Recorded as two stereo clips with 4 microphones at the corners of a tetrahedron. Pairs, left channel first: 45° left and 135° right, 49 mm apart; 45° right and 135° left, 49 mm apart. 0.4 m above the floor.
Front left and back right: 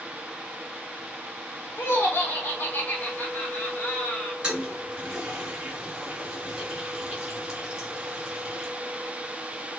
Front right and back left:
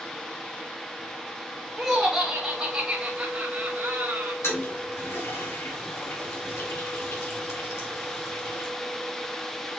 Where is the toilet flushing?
60° right, 2.5 m.